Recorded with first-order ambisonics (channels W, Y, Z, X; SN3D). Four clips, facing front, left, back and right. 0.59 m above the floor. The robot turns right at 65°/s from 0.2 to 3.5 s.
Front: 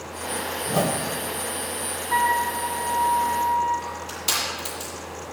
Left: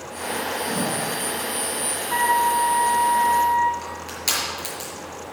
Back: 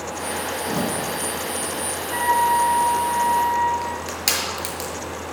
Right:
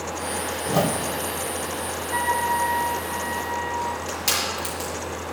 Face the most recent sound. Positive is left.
turn(degrees=175)